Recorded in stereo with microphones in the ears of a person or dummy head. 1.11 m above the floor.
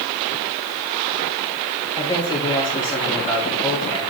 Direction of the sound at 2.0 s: 25° left (ahead or behind).